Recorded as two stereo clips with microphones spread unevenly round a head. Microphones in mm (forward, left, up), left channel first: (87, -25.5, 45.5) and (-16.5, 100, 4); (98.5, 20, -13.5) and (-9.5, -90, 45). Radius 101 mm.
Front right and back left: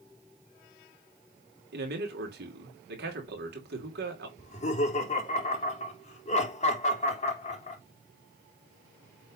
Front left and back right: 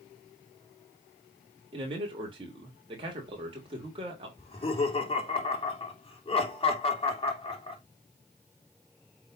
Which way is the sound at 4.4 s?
Straight ahead.